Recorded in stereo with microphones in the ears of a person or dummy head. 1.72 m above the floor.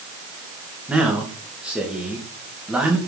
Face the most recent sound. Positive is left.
turn(degrees=0)  # may be behind; listen again after turning